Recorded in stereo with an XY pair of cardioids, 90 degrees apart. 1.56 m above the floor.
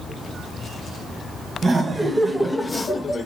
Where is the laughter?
35° right, 0.9 m; by 3.3 s 50° left, 0.8 m.